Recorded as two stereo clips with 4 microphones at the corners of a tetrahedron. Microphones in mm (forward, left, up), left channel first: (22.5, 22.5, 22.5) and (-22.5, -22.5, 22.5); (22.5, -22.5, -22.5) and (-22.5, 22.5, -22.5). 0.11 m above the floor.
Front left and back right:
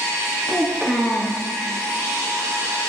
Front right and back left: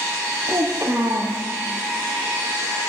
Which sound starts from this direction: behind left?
A child speaking, at 0.5 s.